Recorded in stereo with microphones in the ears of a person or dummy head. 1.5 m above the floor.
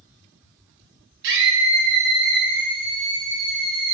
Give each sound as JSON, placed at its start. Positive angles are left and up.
{"t": 1.2, "sound": "a scream", "side_deg": -65, "distance_m": 0.9}